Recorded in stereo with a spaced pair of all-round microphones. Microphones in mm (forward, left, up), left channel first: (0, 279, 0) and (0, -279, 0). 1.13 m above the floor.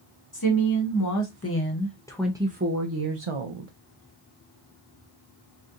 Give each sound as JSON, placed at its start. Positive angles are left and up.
{"t": 0.3, "sound": "a woman speaking", "side_deg": 40, "distance_m": 1.4}